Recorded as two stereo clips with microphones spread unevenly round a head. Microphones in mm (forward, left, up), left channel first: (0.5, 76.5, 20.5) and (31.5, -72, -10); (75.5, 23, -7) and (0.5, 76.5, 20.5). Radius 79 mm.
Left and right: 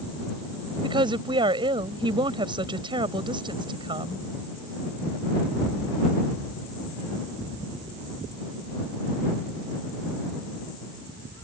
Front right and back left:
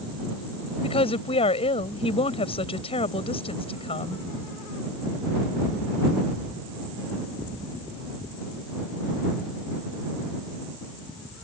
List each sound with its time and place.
0.8 s a woman speaking: 15° right